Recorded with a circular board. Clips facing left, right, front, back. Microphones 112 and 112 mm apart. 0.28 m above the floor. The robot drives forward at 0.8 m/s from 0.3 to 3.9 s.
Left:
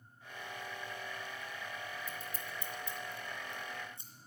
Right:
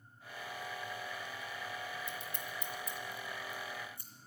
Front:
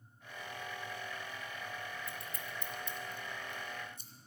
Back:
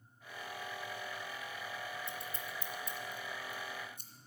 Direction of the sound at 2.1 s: 125° left.